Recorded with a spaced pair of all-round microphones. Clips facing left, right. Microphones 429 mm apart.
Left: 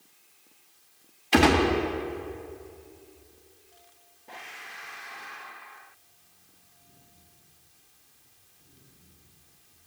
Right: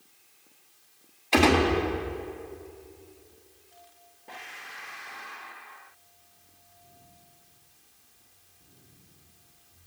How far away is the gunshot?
About 1.3 m.